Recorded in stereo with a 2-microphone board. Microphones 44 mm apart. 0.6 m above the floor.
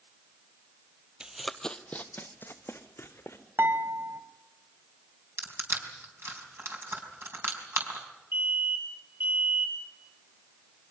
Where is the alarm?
55° right (ahead or behind), 9 m.